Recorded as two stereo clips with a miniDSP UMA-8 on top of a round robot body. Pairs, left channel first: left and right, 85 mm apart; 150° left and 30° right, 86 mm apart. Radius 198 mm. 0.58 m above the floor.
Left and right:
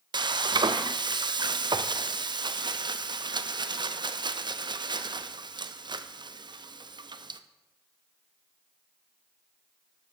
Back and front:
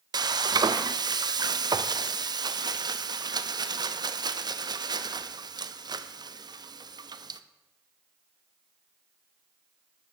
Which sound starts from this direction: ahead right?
Frying, at 0.1 s.